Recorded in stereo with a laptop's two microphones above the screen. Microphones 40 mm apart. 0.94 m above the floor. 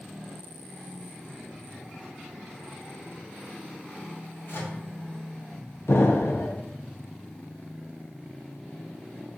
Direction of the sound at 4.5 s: 80° left.